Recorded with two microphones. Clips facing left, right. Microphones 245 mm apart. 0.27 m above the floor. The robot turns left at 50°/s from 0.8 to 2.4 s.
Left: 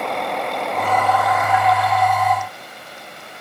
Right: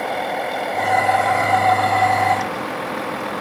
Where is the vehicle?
5° right; by 3.4 s 85° right.